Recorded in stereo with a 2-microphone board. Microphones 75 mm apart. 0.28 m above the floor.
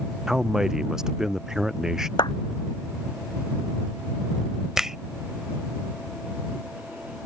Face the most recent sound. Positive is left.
turn(degrees=-5)  # may be behind; listen again after turning